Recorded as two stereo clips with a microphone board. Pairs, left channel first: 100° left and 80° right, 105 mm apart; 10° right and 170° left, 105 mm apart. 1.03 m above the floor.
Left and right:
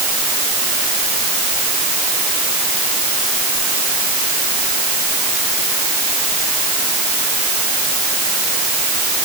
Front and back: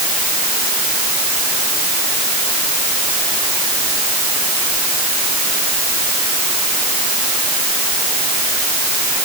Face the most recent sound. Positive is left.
No sound to turn to.